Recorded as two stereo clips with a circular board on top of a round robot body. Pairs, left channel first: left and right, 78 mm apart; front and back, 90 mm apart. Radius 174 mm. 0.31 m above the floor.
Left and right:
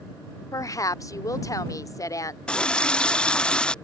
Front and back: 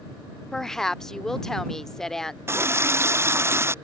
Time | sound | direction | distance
0.5 | a woman speaking | 85° left | ?
2.5 | a running tap | 155° left | ?